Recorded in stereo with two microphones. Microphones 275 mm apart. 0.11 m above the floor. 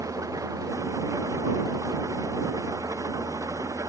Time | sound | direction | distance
0.0 | an engine running | 10° right (ahead or behind) | ?